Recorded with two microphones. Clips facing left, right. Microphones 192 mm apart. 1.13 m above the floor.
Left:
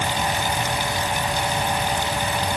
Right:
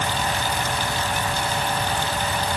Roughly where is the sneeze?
I don't hear a sneeze.